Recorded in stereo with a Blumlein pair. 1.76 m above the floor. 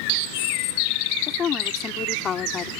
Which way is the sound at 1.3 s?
25° left.